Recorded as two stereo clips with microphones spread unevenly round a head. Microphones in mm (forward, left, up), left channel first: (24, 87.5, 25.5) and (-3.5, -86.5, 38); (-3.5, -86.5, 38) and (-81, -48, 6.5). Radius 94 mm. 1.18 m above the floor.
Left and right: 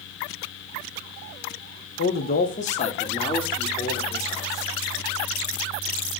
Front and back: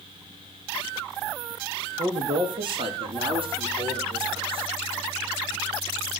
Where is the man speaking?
105° left, 1.4 m; by 4.7 s 155° left, 4.5 m.